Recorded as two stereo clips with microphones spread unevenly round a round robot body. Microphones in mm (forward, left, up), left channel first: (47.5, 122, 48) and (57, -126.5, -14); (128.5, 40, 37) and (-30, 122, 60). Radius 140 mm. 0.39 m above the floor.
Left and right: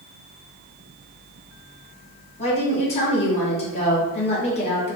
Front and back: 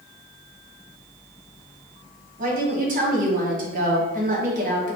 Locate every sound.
2.4 s a woman speaking: 165° left, 1.0 m